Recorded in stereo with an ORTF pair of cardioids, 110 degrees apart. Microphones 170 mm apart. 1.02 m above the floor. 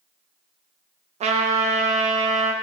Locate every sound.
1.2 s a trumpet: 40° right, 0.8 m